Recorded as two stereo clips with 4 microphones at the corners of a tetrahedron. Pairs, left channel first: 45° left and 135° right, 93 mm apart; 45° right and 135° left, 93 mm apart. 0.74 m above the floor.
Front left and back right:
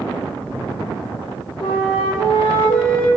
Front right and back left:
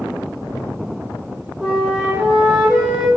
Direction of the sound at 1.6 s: 50° left.